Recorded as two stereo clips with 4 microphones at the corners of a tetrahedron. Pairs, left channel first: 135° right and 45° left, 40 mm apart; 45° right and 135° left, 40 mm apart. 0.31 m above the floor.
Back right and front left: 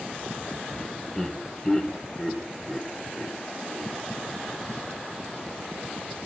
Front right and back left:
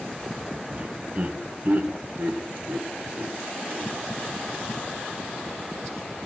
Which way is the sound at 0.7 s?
155° left.